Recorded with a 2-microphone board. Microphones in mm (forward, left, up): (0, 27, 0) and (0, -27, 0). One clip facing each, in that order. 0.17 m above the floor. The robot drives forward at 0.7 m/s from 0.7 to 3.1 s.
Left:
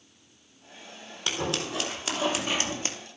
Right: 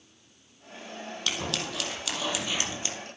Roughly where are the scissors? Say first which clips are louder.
Left 3 dB; left.